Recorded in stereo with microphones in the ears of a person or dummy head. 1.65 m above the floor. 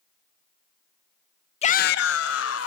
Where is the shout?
30° left (ahead or behind), 0.6 m; by 2.7 s 85° left, 1.7 m.